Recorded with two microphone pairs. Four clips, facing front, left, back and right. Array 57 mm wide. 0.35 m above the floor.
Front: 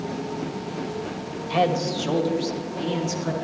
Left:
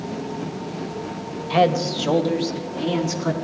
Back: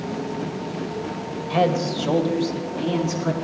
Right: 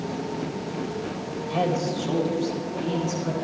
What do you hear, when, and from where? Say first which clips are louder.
1.5 s a man speaking: left 7 dB, back 1 dB; 80° left, 1.0 m; by 3.3 s 110° left, 3 m